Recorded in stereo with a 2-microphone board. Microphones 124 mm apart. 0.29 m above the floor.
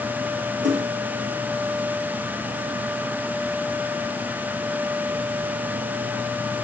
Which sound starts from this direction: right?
A splash, at 0.6 s.